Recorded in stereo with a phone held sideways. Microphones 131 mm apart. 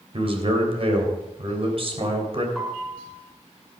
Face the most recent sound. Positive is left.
turn(degrees=0)  # may be behind; listen again after turning